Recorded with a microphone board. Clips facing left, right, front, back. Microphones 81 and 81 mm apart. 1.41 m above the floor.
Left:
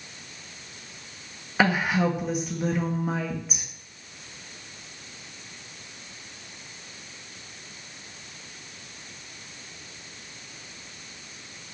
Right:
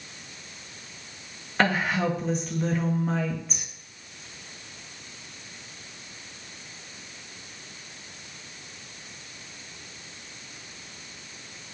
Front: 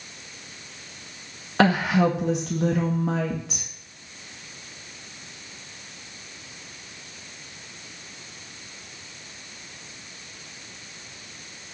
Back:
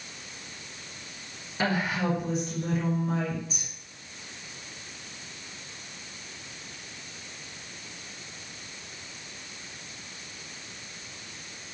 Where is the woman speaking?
10° left, 1.7 m.